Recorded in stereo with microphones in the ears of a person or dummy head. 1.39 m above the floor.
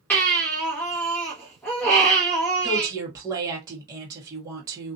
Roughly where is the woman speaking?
Centre.